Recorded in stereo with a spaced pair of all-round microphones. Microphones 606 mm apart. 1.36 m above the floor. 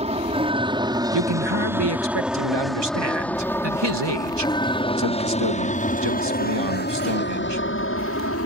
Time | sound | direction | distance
0.0 | an aircraft | 10° right (ahead or behind) | ?
1.1 | a man speaking | 40° right (ahead or behind) | ?